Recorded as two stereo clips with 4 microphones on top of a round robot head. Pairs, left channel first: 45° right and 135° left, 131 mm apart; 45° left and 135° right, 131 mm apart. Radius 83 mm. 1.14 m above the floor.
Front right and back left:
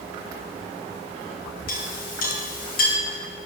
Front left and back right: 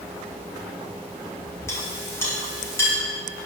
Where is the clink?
30° right, 2.0 m.